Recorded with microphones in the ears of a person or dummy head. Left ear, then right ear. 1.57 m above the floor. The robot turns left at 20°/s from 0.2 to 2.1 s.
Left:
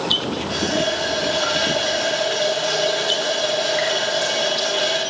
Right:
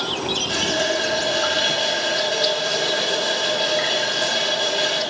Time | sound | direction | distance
0.5 | a running tap | straight behind | 1.4 m